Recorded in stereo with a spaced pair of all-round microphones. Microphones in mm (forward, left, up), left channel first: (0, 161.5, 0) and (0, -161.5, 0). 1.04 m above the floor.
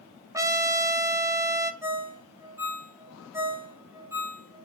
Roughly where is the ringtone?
Centre.